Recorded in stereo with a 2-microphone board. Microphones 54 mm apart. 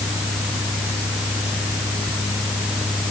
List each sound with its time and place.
Only background noise.